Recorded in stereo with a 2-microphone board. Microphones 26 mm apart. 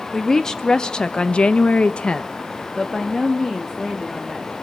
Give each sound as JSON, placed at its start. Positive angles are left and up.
{"t": 0.1, "sound": "a woman speaking", "side_deg": 15, "distance_m": 1.9}